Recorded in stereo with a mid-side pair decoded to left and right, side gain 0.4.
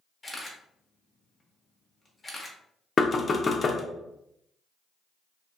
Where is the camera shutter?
20° left, 1.0 m.